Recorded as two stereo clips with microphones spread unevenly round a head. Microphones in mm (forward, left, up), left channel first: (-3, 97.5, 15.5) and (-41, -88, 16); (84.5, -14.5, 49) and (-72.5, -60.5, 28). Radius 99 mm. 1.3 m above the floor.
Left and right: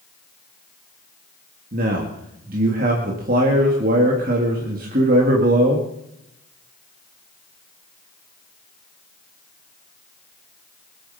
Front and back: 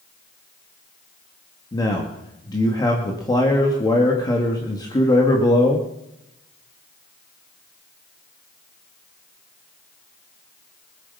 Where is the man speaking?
50° right, 2 m.